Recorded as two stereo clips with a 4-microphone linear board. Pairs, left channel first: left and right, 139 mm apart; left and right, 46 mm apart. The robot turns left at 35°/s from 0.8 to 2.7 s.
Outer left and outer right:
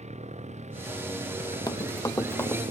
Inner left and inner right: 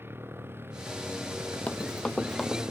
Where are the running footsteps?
30° left (ahead or behind); by 2.6 s 15° left (ahead or behind).